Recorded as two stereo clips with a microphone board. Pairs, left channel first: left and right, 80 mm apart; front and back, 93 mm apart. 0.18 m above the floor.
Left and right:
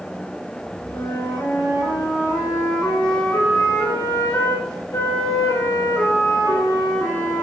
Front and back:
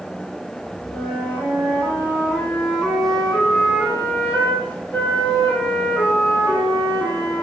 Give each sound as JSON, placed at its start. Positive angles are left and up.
{"t": 0.9, "sound": "a flute", "azimuth_deg": 65, "distance_m": 1.8}